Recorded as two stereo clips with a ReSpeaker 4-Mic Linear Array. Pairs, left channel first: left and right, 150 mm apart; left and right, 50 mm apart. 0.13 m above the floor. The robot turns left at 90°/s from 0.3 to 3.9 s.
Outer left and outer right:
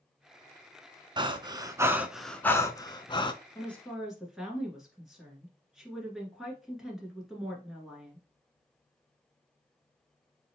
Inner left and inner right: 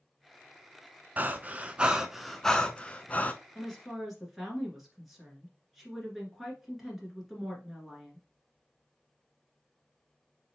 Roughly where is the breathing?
Right.